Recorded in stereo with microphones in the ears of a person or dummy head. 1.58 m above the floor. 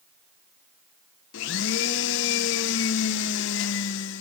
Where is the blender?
70° left (ahead or behind), 1.4 m.